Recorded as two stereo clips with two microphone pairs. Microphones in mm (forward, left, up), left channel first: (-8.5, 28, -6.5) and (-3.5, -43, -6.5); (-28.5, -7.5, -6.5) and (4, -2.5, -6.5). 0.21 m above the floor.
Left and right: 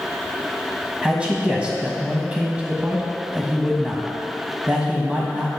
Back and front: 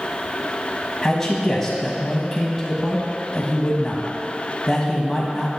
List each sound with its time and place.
1.0 s a man speaking: 120° right, 1.1 m